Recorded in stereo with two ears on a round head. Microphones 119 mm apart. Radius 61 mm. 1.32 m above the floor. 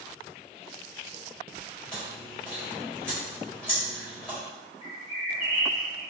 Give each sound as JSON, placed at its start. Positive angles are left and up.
{"t": 1.9, "sound": "chewing", "side_deg": 5, "distance_m": 1.2}
{"t": 4.8, "sound": "a bird", "side_deg": 50, "distance_m": 1.9}